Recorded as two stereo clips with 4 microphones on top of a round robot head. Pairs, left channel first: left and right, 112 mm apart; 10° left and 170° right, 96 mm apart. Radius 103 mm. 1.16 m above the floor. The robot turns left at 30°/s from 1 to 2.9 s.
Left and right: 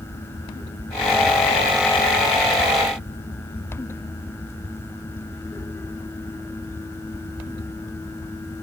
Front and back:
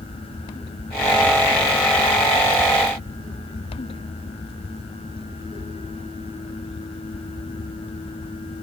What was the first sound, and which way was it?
Only background noise.